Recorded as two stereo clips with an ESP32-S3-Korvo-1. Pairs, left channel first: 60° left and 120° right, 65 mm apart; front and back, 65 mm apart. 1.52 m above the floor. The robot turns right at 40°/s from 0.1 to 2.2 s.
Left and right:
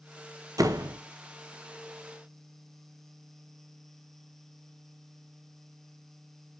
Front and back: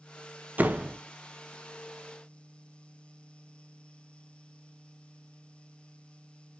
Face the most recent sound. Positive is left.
turn(degrees=-55)